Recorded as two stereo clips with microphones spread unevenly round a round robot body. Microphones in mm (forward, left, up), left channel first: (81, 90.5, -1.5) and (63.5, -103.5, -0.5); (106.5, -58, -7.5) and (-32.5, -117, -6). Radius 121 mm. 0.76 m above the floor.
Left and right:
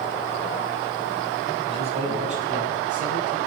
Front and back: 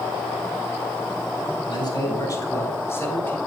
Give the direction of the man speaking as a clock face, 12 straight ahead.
1 o'clock.